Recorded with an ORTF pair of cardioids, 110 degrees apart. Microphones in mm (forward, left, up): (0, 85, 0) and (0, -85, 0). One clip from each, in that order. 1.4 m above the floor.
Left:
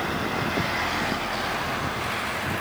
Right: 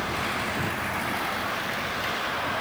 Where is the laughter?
No laughter in this recording.